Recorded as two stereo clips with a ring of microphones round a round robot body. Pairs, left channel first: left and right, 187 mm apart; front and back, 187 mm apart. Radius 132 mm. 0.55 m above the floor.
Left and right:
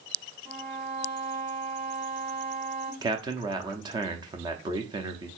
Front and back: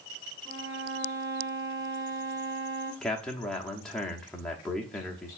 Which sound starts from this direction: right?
A man speaking, at 3.0 s.